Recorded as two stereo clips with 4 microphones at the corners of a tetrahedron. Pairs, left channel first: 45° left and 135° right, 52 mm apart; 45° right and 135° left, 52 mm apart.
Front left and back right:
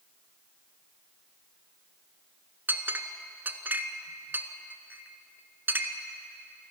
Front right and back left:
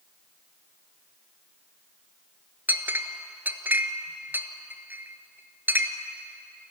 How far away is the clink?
About 1.3 m.